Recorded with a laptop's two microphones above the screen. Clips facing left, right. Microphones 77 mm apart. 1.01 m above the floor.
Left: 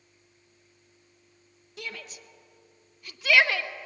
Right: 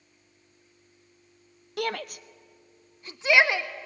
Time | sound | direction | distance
1.8 | a shout | 65° right (ahead or behind) | 0.8 m